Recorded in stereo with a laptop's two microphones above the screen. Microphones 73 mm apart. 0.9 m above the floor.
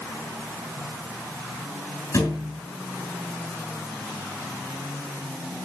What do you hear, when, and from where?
2.1 s a thud: 45° left (ahead or behind), 5.5 m